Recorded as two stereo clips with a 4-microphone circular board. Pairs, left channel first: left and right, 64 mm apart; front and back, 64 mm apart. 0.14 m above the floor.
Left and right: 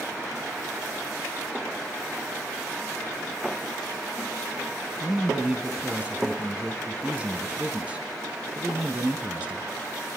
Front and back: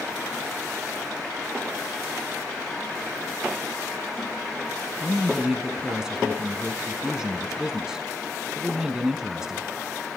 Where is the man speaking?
115° right, 1.1 m.